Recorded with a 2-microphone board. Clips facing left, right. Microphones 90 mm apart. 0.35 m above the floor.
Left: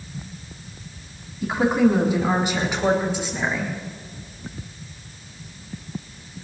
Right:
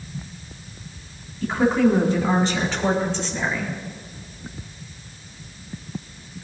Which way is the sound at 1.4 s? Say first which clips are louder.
Even; 15° left (ahead or behind).